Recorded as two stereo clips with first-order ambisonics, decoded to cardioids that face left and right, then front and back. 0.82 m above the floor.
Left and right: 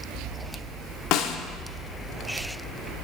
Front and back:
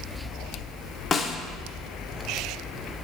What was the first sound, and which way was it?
A snare drum, 65° left.